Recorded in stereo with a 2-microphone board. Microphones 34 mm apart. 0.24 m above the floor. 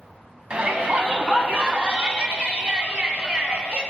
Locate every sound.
0.5 s a shout: 30° right (ahead or behind), 1.7 m